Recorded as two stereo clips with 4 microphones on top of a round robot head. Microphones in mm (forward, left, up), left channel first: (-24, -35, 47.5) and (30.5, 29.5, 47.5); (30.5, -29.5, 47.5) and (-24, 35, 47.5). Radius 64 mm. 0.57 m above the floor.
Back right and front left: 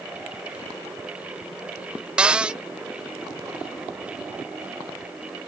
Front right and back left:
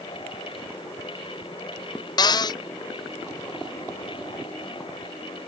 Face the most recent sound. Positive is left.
turn(degrees=-25)